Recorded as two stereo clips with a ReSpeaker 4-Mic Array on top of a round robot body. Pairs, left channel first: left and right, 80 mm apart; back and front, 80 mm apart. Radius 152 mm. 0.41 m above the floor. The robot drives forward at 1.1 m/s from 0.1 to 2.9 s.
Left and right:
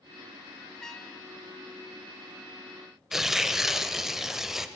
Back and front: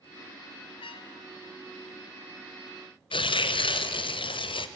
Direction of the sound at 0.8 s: 175° left.